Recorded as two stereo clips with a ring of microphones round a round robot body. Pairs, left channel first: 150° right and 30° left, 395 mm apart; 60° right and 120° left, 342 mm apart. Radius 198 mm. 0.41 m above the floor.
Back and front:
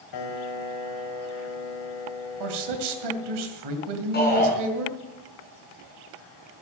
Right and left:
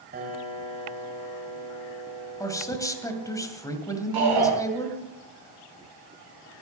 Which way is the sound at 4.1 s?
145° left.